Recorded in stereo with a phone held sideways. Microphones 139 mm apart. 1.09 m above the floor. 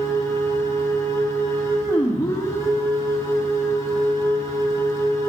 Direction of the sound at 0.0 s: 20° left (ahead or behind).